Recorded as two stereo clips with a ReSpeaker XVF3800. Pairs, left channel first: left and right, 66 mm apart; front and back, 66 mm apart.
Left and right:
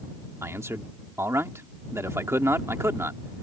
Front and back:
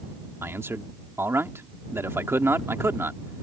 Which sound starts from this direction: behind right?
A man speaking, at 0.4 s.